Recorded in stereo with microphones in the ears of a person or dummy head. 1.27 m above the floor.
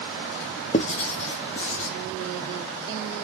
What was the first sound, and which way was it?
Writing, 35° left (ahead or behind).